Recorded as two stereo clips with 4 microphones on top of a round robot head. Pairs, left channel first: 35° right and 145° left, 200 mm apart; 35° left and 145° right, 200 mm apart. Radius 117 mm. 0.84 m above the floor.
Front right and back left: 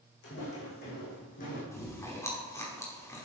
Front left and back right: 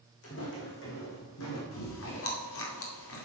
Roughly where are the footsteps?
Ahead.